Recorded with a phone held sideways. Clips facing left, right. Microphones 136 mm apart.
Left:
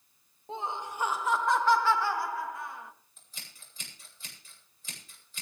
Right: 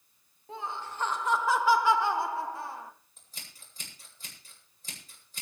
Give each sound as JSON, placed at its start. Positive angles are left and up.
{"t": 0.5, "sound": "laughter", "side_deg": 25, "distance_m": 1.2}
{"t": 3.2, "sound": "scissors", "side_deg": -40, "distance_m": 8.5}